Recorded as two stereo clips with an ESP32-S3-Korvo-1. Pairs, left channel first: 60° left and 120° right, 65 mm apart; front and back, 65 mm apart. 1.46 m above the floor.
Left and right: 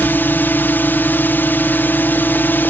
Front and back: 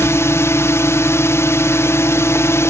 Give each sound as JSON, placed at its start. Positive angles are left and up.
{"t": 0.0, "sound": "a drone", "azimuth_deg": 15}